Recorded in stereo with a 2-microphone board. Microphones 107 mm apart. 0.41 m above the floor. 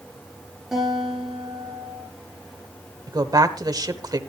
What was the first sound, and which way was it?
A guitar, centre (ahead or behind).